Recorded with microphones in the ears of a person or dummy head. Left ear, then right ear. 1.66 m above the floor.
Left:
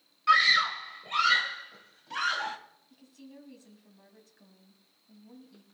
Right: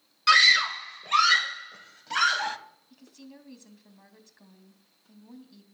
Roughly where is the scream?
Right.